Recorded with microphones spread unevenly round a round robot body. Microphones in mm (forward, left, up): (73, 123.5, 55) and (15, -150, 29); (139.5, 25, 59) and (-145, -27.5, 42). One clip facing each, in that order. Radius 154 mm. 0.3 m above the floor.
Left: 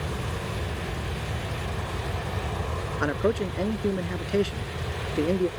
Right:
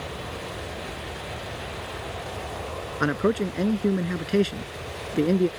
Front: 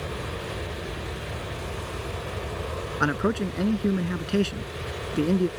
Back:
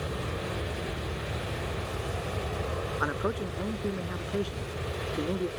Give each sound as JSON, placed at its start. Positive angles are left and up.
{"t": 0.0, "sound": "an aircraft", "azimuth_deg": 100}
{"t": 3.0, "sound": "a man speaking", "azimuth_deg": -35}